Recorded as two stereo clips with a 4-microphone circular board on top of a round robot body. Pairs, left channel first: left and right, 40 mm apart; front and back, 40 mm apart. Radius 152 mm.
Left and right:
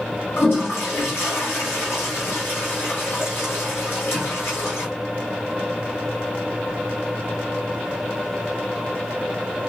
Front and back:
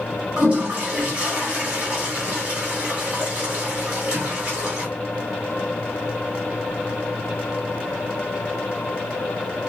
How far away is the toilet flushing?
About 2 m.